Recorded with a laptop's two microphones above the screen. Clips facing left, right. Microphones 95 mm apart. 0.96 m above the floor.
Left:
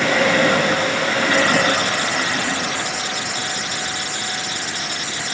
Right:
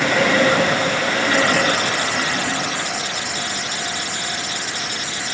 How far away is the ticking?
I don't hear ticking.